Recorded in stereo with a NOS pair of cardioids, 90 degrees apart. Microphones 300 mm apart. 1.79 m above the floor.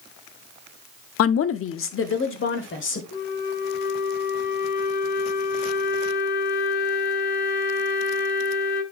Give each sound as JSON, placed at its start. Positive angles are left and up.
{"t": 1.2, "sound": "a woman speaking", "azimuth_deg": 50, "distance_m": 0.6}
{"t": 3.1, "sound": "a flute", "azimuth_deg": 60, "distance_m": 2.0}